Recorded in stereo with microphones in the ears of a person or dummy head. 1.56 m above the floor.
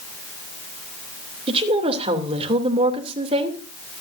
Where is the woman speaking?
25° right (ahead or behind), 2.5 m.